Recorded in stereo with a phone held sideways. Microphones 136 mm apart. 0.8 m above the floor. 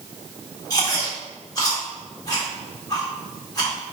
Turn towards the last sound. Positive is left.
turn(degrees=25)  # may be behind; listen again after turning